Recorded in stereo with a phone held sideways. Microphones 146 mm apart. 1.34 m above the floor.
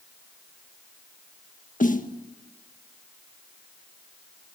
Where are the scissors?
No scissors in this recording.